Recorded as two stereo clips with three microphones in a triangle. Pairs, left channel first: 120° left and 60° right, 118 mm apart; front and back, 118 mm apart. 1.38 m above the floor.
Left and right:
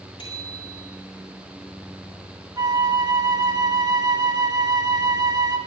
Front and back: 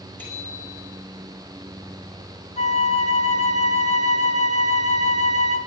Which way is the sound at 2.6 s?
5° right.